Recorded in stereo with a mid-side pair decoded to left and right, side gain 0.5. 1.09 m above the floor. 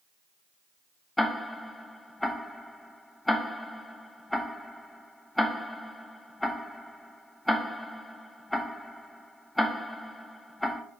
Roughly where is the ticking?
Ahead.